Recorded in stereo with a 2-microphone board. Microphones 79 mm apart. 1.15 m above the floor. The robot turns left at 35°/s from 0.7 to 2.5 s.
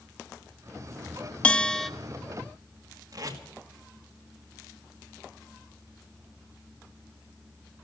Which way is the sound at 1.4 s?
15° left (ahead or behind).